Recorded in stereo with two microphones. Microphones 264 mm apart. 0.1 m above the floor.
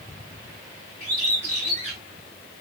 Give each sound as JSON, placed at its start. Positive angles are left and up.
{"t": 1.0, "sound": "a bird", "side_deg": 60, "distance_m": 5.5}